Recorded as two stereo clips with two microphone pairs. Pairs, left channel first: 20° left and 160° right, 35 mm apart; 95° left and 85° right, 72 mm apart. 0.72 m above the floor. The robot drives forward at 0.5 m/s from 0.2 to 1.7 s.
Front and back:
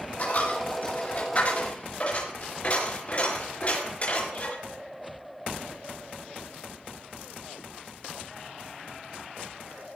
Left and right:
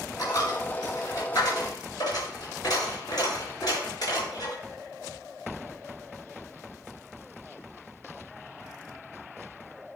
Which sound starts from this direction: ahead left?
A dropped coin, at 0.2 s.